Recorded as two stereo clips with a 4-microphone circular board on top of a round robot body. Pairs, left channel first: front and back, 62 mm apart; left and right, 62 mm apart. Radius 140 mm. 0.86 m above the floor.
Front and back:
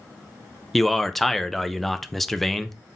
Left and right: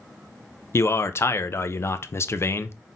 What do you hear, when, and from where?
0.7 s a man speaking: 85° left, 0.6 m